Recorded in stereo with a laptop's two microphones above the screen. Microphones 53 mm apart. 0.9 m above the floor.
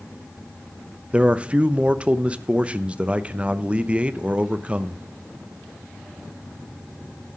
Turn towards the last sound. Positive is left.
turn(degrees=-25)  # may be behind; listen again after turning